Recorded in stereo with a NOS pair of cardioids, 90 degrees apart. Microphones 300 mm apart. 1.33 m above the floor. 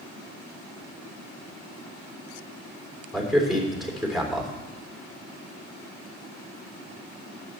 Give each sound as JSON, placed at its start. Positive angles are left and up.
{"t": 3.1, "sound": "a man speaking", "azimuth_deg": 0, "distance_m": 3.5}